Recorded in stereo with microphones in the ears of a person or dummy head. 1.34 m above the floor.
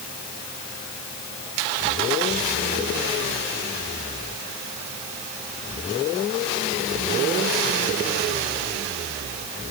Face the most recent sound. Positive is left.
No sound to turn to.